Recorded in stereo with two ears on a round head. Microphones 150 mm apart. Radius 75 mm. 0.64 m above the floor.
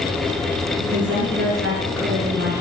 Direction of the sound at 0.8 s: 70° right (ahead or behind).